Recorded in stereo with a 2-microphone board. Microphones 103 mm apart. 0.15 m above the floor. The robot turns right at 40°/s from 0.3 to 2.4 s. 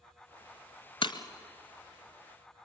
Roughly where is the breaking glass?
Left.